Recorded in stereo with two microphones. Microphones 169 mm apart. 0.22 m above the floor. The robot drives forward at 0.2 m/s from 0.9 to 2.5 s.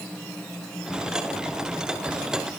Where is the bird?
I don't hear a bird.